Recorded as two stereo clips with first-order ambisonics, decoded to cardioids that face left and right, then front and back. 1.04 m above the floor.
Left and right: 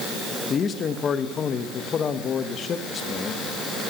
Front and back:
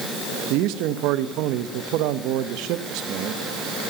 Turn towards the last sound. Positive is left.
turn(degrees=150)